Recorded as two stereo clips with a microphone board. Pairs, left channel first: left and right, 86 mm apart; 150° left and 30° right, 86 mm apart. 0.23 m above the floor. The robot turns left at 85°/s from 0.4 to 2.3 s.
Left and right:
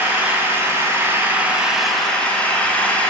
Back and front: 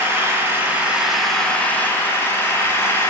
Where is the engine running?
50° right, 1.0 m; by 3.1 s 145° left, 1.0 m.